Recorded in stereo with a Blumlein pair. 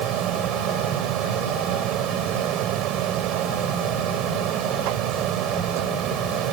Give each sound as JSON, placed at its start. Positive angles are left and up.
{"t": 0.0, "sound": "a fan", "azimuth_deg": -35}